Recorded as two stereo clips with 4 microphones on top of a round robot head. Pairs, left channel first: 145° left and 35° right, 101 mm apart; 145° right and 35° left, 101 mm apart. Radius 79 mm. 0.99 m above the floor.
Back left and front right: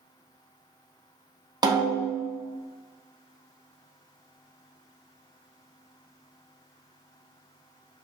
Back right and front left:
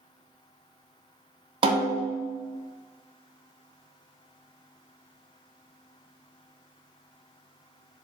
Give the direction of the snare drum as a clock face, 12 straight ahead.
12 o'clock.